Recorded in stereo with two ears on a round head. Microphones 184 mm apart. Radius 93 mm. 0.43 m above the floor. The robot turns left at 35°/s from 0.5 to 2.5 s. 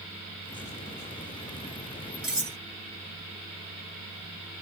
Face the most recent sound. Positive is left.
turn(degrees=10)  # may be behind; listen again after turning